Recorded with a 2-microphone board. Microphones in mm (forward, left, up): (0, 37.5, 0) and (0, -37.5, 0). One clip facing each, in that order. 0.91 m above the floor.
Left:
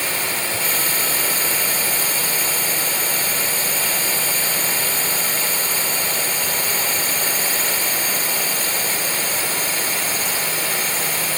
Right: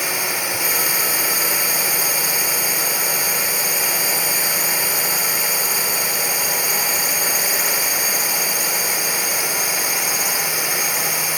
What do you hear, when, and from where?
0.0 s a drone: 15° right (ahead or behind)